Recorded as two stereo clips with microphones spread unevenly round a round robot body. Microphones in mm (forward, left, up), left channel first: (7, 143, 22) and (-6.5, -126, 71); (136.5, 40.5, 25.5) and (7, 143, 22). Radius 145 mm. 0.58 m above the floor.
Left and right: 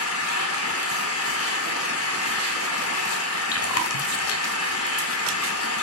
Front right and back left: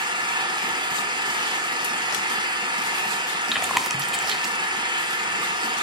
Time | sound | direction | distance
0.0 | an engine running | 85° left | 1.9 m
3.5 | chewing | 55° left | 1.5 m